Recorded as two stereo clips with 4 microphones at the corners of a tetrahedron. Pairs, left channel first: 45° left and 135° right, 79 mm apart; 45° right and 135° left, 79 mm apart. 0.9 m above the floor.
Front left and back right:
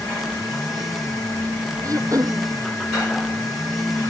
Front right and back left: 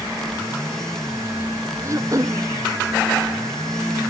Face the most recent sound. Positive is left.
turn(degrees=180)